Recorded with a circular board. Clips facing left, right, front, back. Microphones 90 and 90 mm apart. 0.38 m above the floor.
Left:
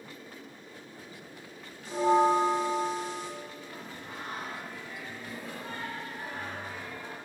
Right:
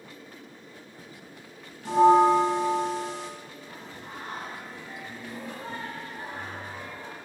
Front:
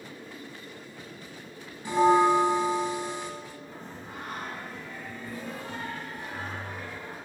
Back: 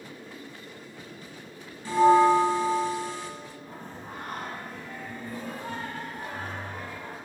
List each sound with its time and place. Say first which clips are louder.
1.9 s a bell: right 6 dB, back 2 dB; 70° right, 0.7 m
3.7 s singing: right 1 dB, back 1 dB; 140° right, 2.5 m